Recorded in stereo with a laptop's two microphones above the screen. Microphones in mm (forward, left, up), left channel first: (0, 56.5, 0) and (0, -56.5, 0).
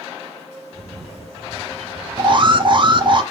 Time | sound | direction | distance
0.7 | a camera shutter | 65° right (ahead or behind) | 4.5 m
2.2 | an alarm | 45° right (ahead or behind) | 1.4 m